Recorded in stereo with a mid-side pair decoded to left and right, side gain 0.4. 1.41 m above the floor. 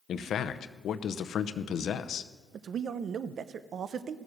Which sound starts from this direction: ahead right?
A man speaking, at 2.5 s.